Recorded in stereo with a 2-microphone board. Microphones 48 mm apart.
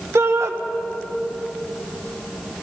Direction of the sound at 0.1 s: 75° right (ahead or behind).